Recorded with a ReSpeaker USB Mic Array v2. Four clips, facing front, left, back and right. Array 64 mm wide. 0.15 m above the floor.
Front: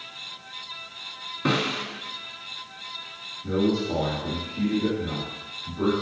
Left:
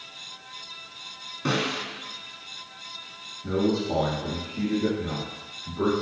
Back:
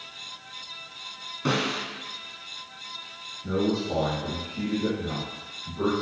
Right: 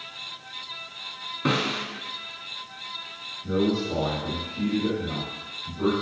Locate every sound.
1.4 s a snare drum: 50° right, 1.3 m
3.4 s a man speaking: 90° left, 2 m